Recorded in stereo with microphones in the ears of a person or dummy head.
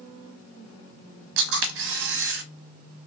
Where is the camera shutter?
60° right (ahead or behind), 0.7 m.